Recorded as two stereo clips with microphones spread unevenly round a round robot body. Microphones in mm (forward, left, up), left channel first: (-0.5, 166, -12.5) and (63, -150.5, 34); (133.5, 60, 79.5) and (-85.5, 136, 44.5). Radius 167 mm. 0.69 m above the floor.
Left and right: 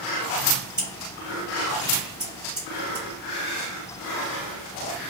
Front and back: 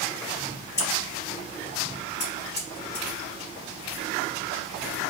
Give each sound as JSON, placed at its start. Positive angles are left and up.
{"t": 0.8, "sound": "scissors", "azimuth_deg": 15, "distance_m": 1.5}